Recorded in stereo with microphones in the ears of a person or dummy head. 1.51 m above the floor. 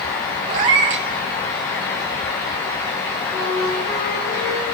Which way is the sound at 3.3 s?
60° left (ahead or behind).